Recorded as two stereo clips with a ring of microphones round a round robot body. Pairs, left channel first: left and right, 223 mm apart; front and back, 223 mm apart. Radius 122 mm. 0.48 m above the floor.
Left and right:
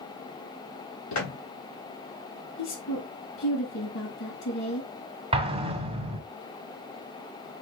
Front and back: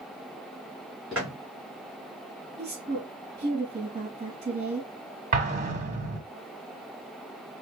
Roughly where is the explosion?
Behind right.